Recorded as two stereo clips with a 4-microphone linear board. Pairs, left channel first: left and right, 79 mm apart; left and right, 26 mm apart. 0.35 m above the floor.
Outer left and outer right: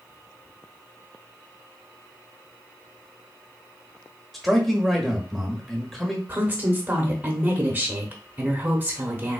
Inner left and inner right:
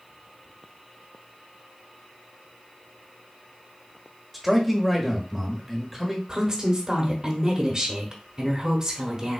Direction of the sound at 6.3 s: 25° right (ahead or behind).